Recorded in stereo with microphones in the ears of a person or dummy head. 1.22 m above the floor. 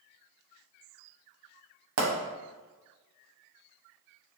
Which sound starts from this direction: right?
A pop, at 2.0 s.